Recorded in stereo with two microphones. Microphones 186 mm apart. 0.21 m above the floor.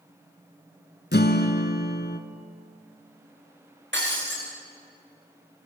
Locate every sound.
1.1 s a guitar: 65° left (ahead or behind), 1.4 m
3.9 s breaking glass: 75° right (ahead or behind), 6.5 m